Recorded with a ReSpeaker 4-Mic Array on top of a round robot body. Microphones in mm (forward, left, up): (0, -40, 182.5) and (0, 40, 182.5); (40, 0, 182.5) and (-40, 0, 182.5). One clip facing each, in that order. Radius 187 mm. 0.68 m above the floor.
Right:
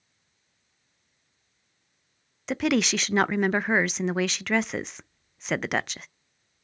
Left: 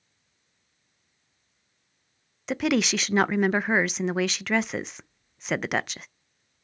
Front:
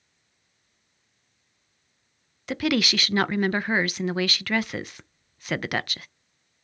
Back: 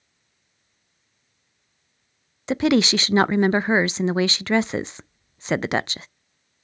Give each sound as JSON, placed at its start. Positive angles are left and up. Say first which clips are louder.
{"t": 2.5, "sound": "a woman speaking", "louder": "even, back 6 dB", "azimuth_deg": 180, "distance_m": 0.5}